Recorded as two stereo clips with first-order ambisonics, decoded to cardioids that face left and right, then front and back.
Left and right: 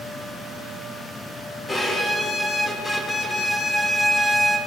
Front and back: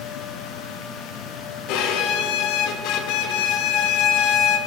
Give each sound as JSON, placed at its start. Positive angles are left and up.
{"t": 1.7, "sound": "a violin", "azimuth_deg": 10, "distance_m": 1.2}